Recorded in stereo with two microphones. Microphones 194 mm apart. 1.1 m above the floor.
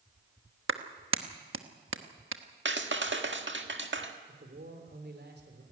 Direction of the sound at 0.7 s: 85° right.